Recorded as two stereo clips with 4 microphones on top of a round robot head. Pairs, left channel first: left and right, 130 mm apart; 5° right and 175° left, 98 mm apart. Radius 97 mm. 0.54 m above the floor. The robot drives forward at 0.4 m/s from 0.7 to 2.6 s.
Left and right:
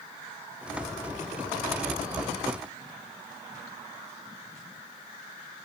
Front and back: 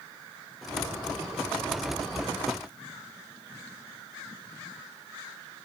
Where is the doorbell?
I don't hear a doorbell.